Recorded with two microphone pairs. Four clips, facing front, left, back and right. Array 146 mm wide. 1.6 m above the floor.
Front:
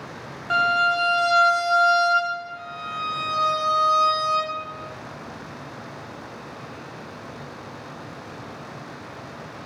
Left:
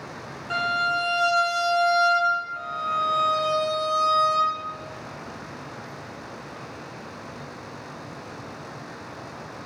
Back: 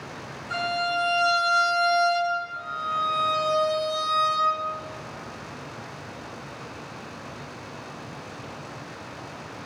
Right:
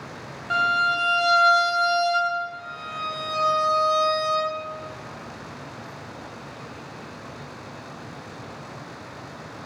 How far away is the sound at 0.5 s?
About 0.6 m.